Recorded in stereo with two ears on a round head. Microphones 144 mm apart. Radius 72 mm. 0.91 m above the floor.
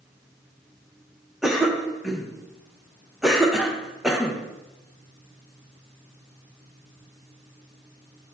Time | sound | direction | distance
1.4 | a cough | centre (ahead or behind) | 0.6 m